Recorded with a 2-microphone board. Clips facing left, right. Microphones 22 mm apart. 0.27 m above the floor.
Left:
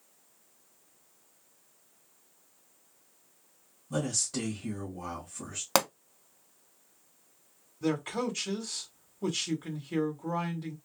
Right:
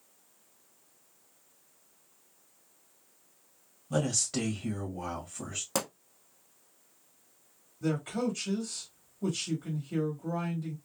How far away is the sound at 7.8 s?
About 1.0 m.